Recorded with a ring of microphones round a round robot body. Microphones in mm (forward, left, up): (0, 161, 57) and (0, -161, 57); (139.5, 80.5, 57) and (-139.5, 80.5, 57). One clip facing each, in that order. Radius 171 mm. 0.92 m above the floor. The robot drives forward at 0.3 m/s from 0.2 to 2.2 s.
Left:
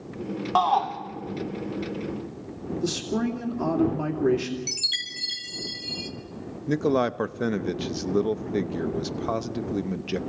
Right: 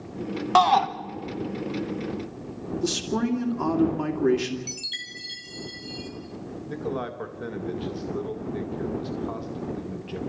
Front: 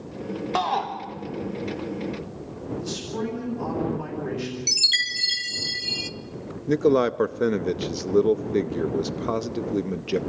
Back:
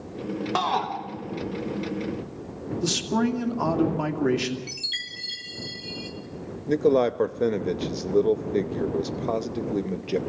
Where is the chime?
25° left, 0.9 m.